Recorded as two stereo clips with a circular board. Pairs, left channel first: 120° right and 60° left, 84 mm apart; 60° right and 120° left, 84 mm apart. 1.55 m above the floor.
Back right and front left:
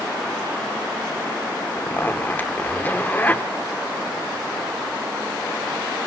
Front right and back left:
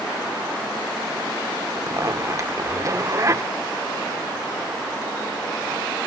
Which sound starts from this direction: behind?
A zipper, at 1.8 s.